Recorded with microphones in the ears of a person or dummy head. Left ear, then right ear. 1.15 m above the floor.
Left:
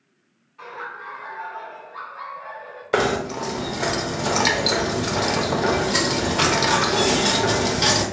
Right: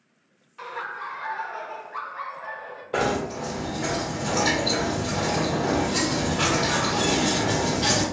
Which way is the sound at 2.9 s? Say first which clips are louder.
Left 4 dB; 65° left (ahead or behind).